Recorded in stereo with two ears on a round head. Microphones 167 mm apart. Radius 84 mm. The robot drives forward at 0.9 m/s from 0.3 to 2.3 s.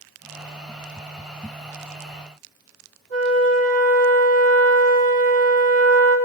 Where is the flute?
70° right (ahead or behind), 1.2 m.